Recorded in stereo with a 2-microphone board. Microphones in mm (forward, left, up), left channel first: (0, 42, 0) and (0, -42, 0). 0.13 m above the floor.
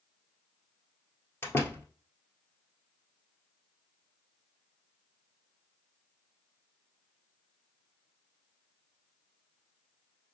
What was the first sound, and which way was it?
A door slam, 25° left (ahead or behind).